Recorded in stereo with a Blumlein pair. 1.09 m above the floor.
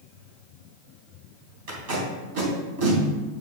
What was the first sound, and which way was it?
Tape being pulled, 50° right.